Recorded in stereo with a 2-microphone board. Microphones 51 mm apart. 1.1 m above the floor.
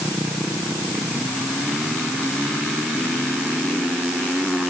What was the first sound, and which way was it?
Only background noise.